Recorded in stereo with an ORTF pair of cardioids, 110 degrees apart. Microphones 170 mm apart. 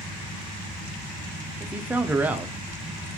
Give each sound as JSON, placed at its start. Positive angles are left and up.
{"t": 1.6, "sound": "a man speaking", "azimuth_deg": -10, "distance_m": 0.6}